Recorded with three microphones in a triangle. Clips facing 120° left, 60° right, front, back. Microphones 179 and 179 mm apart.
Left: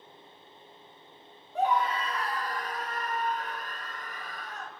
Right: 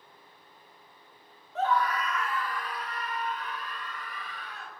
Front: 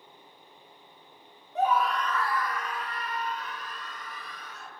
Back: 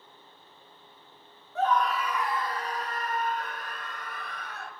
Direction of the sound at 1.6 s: 55° left.